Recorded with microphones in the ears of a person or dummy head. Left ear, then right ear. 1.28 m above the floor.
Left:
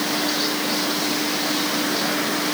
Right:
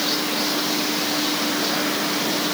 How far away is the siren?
I don't hear a siren.